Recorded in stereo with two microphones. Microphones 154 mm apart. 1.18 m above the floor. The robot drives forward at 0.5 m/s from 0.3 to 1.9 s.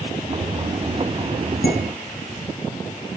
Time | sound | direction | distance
1.6 | dishes clattering | 80° left | 7 m